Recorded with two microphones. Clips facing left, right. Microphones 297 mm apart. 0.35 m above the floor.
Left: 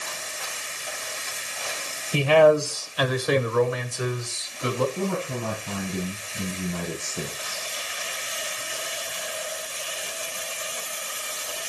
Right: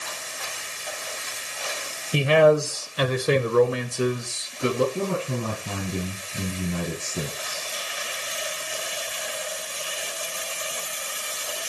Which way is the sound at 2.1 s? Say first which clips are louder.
Even; 20° right (ahead or behind).